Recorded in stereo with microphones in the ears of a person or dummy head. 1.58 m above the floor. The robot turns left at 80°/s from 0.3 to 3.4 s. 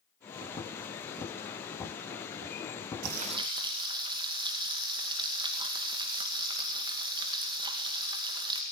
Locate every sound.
3.0 s frying: 55° right (ahead or behind), 2.5 m; by 8.6 s 25° right (ahead or behind), 2.5 m